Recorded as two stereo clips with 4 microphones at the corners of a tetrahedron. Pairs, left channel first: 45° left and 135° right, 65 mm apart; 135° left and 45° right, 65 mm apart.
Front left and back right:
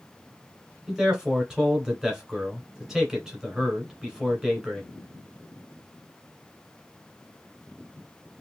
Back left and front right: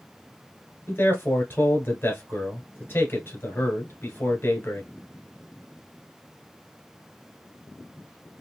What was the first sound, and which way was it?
A man speaking, 150° left.